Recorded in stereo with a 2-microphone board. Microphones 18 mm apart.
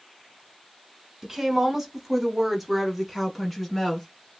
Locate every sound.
1.2 s a woman speaking: 30° right (ahead or behind), 1.1 m; by 4.1 s centre (ahead or behind), 1.5 m